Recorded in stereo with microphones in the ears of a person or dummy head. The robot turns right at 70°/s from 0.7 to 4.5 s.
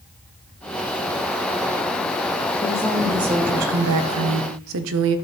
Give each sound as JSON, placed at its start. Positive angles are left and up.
{"t": 2.6, "sound": "a woman speaking", "azimuth_deg": 160, "distance_m": 0.8}